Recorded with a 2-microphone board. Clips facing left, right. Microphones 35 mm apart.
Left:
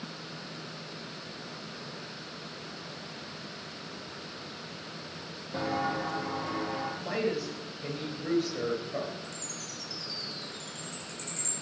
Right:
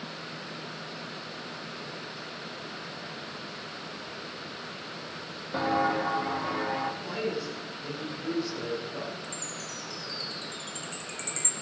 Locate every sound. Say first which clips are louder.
5.5 s footsteps: right 5 dB; 35° right (ahead or behind), 1.2 m; by 6.9 s 30° right (ahead or behind), 2.5 m
7.0 s a woman speaking: left 1 dB; 80° left, 4.5 m
9.2 s a chime: right 3 dB; 70° right (ahead or behind), 2 m